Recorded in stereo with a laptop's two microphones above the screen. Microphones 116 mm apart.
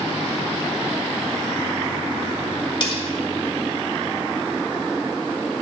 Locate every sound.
2.8 s cutlery clinking: 45° left (ahead or behind), 1.5 m